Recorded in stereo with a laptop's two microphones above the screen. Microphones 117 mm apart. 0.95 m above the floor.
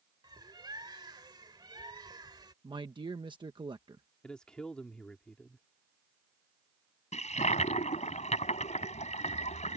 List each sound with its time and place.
0.2 s a bird: 40° right (ahead or behind)
2.6 s a man speaking: 40° right (ahead or behind)
4.2 s a man speaking: 5° left (ahead or behind)
7.1 s a toilet flushing: 75° left (ahead or behind)